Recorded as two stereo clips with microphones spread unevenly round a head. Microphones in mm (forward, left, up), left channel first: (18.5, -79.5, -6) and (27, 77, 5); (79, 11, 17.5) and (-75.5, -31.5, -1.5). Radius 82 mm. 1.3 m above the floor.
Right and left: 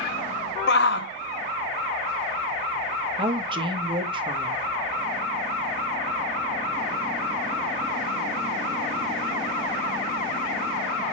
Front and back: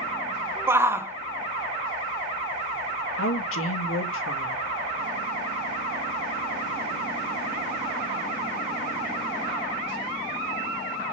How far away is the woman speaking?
About 1.4 m.